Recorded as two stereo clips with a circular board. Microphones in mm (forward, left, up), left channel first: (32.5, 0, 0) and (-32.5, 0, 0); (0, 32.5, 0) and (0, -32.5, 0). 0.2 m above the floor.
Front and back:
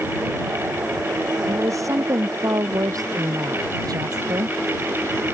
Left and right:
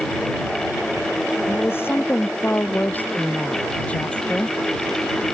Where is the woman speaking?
145° left; by 4.6 s 170° left.